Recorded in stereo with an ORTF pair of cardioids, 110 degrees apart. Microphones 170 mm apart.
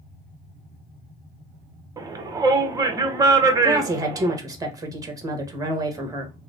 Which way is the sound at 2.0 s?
20° right.